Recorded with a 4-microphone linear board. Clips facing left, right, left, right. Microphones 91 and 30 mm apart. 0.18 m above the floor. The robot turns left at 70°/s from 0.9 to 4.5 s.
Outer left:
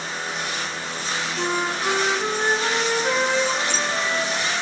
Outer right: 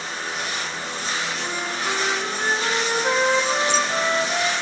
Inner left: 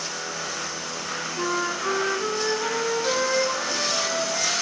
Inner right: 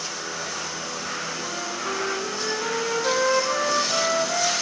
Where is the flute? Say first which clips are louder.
Outer left 4 dB, inner left 4 dB; 90° left, 0.9 m; by 4.5 s 130° right, 0.9 m.